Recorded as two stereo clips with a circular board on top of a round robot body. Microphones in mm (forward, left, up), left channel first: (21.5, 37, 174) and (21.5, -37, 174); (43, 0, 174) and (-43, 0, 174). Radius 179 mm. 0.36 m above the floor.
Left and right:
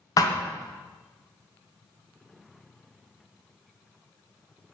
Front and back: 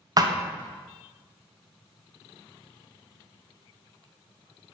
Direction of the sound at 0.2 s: 130° left.